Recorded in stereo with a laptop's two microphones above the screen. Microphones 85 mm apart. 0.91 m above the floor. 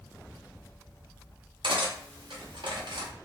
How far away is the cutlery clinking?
About 0.8 m.